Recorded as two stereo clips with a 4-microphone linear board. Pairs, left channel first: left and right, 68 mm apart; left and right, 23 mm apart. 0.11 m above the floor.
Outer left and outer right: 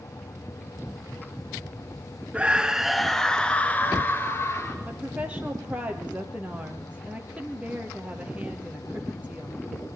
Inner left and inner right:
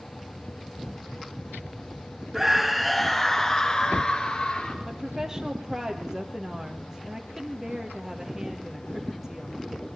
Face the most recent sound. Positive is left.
turn(degrees=-20)  # may be behind; listen again after turning